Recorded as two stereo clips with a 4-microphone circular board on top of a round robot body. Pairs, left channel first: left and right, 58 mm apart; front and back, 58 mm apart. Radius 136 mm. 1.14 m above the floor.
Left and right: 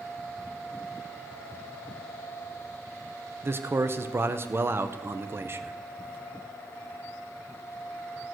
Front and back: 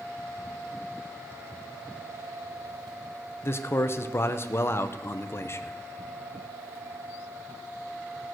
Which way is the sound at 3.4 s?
45° right.